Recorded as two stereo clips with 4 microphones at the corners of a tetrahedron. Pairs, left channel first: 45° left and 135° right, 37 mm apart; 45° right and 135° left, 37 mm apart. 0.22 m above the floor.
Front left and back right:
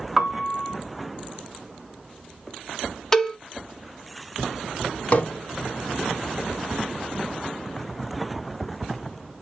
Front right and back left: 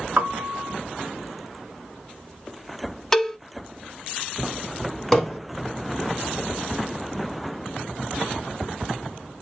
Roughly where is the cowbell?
Ahead.